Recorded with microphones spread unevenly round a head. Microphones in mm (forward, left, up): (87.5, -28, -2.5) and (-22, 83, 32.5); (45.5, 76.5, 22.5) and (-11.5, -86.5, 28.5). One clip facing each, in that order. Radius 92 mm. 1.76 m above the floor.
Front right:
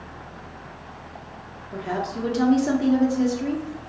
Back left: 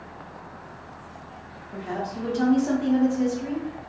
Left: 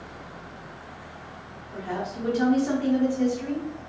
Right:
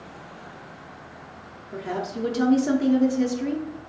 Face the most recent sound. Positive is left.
turn(degrees=-100)